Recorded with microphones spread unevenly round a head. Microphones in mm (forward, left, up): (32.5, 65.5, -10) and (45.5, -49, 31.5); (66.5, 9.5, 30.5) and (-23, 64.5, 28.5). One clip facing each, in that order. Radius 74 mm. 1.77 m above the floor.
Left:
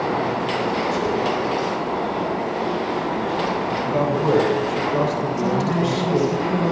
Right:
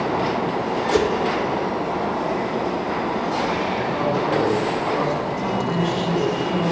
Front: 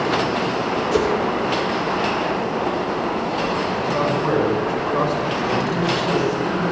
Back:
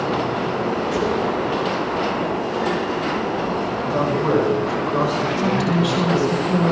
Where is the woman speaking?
165° left, 8.5 m.